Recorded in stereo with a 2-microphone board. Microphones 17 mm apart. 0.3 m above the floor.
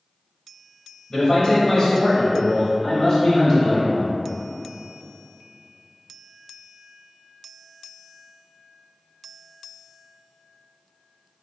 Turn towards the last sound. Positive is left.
turn(degrees=10)  # may be behind; listen again after turning